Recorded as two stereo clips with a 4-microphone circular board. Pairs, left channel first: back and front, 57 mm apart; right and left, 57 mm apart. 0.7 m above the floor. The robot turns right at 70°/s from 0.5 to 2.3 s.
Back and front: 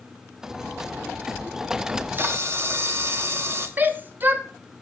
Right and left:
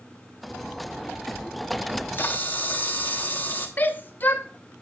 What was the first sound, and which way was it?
A camera shutter, 70° right.